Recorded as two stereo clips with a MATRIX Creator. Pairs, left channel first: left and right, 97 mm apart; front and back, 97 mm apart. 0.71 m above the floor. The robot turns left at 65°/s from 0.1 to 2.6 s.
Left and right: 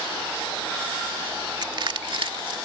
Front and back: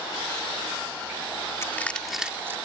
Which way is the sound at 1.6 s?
55° right.